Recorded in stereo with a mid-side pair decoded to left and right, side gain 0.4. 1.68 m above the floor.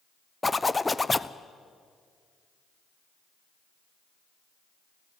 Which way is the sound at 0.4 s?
20° left.